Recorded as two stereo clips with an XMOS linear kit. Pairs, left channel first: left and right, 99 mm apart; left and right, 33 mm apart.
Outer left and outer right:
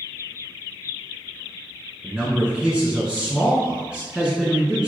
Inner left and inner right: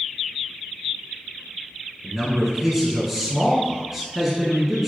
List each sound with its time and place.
2.0 s a man speaking: 10° right (ahead or behind), 1.1 m